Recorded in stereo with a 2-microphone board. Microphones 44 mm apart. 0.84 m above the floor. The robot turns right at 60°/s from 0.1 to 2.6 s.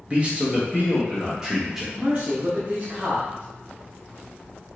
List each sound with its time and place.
0.1 s a man speaking: 115° right, 1.1 m; by 1.8 s 10° right, 1.1 m
1.9 s a man speaking: 90° right, 1.0 m; by 3.5 s 50° right, 1.0 m